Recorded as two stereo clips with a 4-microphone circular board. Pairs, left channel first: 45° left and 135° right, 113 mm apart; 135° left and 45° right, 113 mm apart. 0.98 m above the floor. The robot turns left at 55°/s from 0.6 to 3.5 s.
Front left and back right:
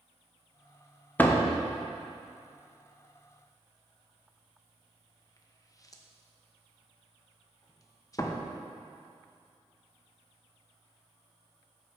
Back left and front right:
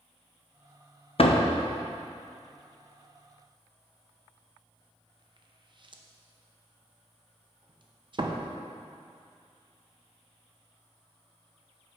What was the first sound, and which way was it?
A door slam, 120° left.